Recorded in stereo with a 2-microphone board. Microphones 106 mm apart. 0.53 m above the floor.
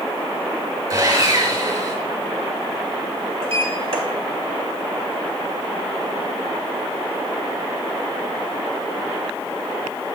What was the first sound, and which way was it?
Sawing, 45° right (ahead or behind).